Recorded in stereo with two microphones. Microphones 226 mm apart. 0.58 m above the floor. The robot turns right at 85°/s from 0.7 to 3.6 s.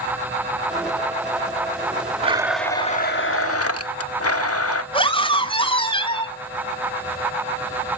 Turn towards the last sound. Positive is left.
turn(degrees=25)  # may be behind; listen again after turning